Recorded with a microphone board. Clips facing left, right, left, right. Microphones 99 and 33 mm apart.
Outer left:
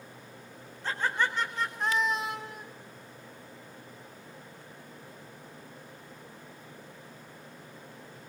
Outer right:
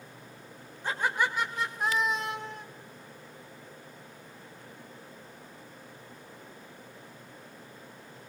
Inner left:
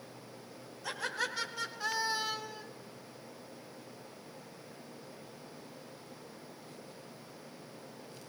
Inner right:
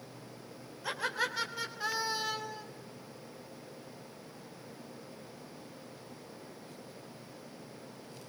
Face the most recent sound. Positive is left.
turn(degrees=5)  # may be behind; listen again after turning